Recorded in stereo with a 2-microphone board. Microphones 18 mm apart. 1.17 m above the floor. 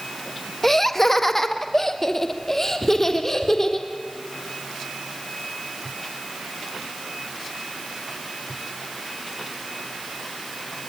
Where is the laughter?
15° left (ahead or behind), 1.5 m; by 3.9 s 20° left (ahead or behind), 4 m.